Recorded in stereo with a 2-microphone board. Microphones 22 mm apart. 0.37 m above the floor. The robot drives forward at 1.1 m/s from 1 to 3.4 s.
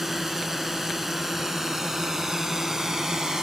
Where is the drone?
20° right (ahead or behind); by 3.4 s 30° right (ahead or behind).